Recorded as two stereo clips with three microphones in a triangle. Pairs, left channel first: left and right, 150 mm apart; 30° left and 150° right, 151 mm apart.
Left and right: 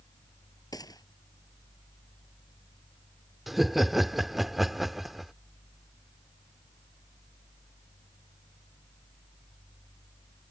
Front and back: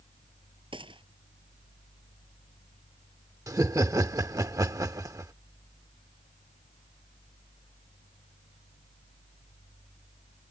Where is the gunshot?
155° left.